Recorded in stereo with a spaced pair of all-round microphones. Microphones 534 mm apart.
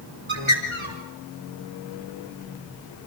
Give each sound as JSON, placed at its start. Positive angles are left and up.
{"t": 0.3, "sound": "a bird", "side_deg": -60, "distance_m": 4.0}